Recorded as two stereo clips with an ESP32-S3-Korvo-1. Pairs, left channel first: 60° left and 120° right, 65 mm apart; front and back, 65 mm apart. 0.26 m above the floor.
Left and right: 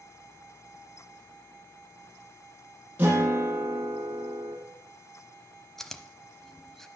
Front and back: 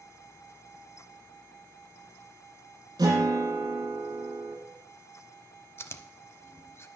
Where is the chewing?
20° right, 0.7 m.